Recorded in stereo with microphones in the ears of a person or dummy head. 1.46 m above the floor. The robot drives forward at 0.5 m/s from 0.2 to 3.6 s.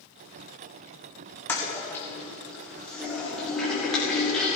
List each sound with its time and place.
1.5 s a toilet flushing: 15° left (ahead or behind), 1.5 m; by 4.6 s 10° left (ahead or behind), 2.5 m